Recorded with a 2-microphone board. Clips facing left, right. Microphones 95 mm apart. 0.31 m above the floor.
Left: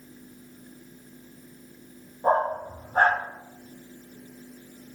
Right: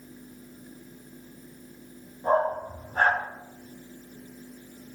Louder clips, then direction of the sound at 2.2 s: Left 1 dB; 45° left (ahead or behind).